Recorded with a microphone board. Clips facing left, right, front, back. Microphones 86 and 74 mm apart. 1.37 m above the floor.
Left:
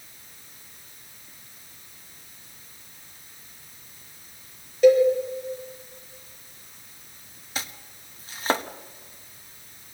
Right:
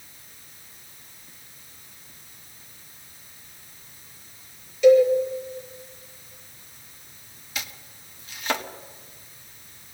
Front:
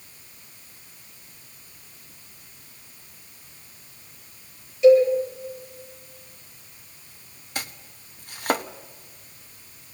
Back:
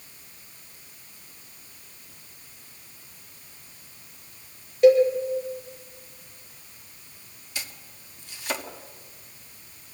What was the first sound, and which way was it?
A cowbell, 140° left.